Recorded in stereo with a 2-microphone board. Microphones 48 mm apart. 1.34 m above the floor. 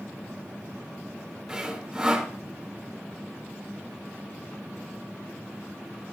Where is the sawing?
10° right (ahead or behind), 4 m.